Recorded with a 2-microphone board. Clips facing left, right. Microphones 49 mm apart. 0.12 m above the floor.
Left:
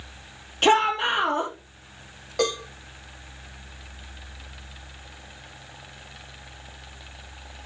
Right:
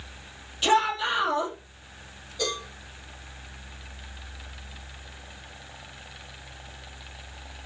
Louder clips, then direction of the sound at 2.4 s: Left 6 dB; 80° left.